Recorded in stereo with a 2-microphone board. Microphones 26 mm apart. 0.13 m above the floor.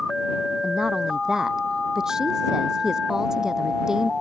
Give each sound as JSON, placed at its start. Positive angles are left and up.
{"t": 0.6, "sound": "a woman speaking", "side_deg": -25}